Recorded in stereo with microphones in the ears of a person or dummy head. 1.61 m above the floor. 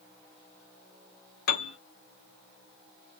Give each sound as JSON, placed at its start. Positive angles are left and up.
{"t": 1.5, "sound": "a piano", "side_deg": 60, "distance_m": 0.7}